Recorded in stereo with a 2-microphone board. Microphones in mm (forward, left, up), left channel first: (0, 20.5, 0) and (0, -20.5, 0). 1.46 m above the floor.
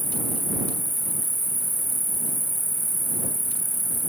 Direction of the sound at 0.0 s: 55° left (ahead or behind).